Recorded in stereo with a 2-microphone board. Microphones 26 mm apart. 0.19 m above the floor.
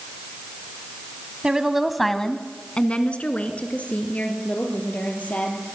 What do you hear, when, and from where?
1.4 s a woman speaking: 30° right (ahead or behind), 1.3 m; by 5.6 s 70° left (ahead or behind), 5.5 m